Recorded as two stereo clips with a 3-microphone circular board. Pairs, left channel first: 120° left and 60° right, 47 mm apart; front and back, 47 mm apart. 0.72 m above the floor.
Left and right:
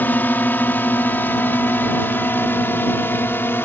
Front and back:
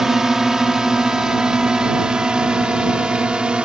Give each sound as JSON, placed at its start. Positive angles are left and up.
{"t": 0.0, "sound": "a drone", "azimuth_deg": 105}